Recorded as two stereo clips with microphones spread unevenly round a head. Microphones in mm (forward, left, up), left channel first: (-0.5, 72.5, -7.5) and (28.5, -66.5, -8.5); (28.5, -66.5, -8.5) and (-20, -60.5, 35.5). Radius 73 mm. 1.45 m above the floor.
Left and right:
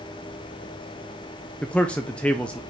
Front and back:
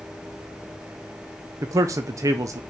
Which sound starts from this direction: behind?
A man speaking, at 1.6 s.